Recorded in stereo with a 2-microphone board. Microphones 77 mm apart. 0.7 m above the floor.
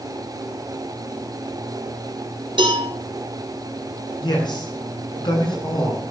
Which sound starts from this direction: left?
A man speaking, at 4.2 s.